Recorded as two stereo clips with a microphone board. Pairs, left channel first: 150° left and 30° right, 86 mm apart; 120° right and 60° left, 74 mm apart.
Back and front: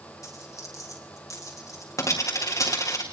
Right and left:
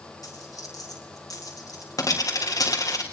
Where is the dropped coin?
155° right, 3 m.